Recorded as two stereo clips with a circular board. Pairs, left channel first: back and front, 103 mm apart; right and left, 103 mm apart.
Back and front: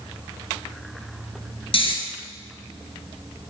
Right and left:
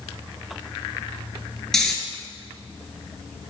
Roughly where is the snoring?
Behind.